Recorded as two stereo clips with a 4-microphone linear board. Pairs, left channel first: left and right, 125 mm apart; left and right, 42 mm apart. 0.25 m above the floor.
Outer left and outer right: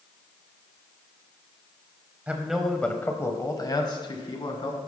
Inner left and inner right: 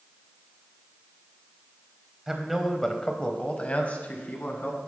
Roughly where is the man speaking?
Centre.